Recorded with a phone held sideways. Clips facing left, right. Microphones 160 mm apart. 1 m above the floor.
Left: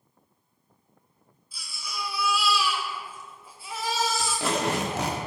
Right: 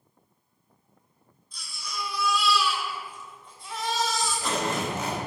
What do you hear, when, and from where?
1.5 s a baby crying: 5° left (ahead or behind), 1.6 m
4.2 s tape being pulled: 85° left, 1.3 m